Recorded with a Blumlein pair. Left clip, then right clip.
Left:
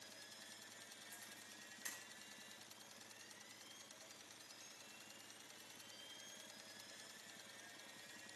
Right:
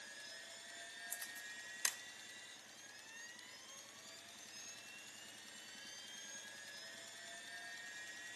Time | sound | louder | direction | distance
0.0 | a machine running | right 5 dB | 45° right | 1.3 m
1.1 | a camera shutter | right 8 dB | 45° right | 0.6 m